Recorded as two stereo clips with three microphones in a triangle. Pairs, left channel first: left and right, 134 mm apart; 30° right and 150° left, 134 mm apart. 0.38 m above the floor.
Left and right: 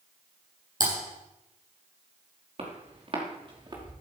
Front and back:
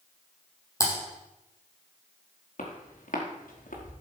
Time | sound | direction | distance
0.8 | typing on a keyboard | 100° right | 4.5 m
2.6 | footsteps | 50° right | 4 m